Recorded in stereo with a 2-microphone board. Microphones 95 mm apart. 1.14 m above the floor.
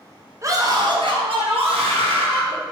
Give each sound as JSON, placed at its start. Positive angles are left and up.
{"t": 0.4, "sound": "a scream", "side_deg": -35, "distance_m": 0.7}